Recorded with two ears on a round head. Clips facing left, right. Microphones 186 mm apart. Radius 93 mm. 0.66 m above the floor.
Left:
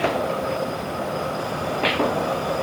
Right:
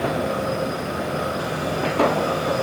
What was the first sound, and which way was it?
Only background noise.